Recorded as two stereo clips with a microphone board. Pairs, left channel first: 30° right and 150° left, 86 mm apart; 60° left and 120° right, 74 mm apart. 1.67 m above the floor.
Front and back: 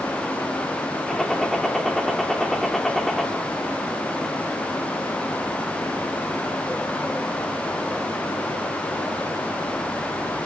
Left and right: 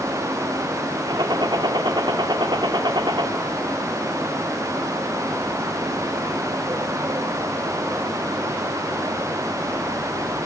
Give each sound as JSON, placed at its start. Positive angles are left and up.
{"t": 1.1, "sound": "a gunshot", "azimuth_deg": -115, "distance_m": 4.0}